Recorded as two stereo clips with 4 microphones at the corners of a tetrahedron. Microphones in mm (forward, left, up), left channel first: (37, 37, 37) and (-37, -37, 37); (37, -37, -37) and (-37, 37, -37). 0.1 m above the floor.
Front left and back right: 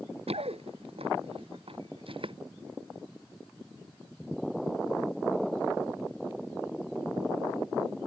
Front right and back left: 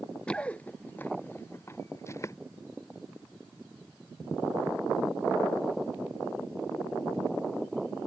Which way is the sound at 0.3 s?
125° right.